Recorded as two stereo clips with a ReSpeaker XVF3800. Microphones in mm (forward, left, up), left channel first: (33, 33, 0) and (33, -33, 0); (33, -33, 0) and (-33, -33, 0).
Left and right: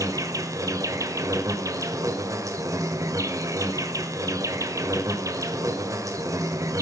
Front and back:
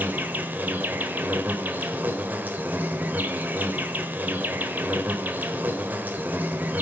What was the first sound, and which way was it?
An insect, 115° right.